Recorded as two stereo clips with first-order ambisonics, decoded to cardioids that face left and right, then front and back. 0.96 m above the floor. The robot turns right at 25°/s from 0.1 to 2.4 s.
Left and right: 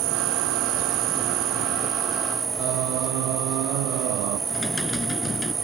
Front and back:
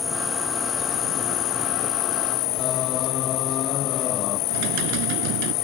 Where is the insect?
80° right; by 5.6 s 20° right.